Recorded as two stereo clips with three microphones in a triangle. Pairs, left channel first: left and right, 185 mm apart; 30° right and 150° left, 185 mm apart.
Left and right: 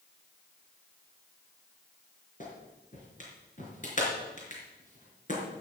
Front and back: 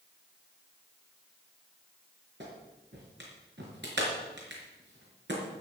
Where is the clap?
135° left, 4.5 m.